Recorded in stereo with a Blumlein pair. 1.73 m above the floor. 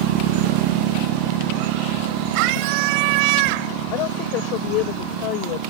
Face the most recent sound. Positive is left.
turn(degrees=40)